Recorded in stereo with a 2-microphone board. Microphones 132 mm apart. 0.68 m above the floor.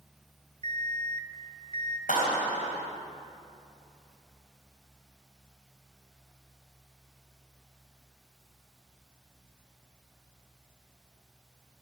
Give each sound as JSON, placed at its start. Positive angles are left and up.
{"t": 0.6, "sound": "an alarm clock", "side_deg": -55, "distance_m": 0.6}
{"t": 2.1, "sound": "a clap", "side_deg": 80, "distance_m": 3.0}